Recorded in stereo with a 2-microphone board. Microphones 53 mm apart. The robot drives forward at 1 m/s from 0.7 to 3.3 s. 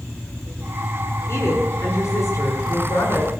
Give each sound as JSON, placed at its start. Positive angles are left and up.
{"t": 1.3, "sound": "a woman speaking", "side_deg": 55, "distance_m": 7.0}